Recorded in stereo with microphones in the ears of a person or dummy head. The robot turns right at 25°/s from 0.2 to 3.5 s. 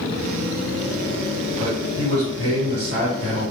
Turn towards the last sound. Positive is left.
turn(degrees=-40)